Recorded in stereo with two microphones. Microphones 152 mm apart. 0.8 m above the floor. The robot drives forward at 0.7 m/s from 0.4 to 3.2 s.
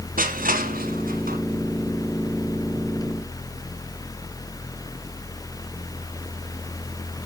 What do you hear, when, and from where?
0.2 s crushing: 65° right (ahead or behind), 1.5 m